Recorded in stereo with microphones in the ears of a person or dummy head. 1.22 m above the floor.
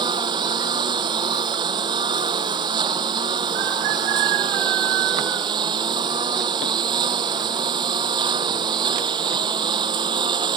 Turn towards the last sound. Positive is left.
turn(degrees=-20)  # may be behind; listen again after turning